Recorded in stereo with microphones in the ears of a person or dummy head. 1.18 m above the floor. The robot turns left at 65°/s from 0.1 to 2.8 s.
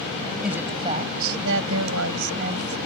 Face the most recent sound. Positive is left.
turn(degrees=-160)